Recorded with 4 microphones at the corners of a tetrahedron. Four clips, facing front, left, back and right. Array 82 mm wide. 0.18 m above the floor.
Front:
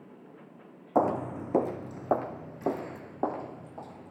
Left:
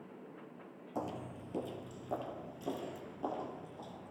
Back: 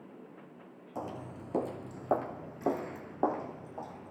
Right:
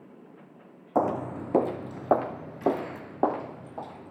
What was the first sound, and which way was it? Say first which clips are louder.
Footsteps: right 15 dB, front 14 dB; 45° right.